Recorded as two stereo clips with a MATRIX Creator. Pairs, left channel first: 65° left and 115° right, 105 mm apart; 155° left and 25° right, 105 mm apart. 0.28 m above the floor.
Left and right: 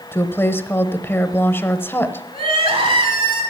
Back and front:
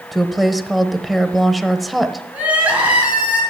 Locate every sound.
0.1 s a woman speaking: 65° left, 0.9 m
2.3 s crying: 100° right, 3.5 m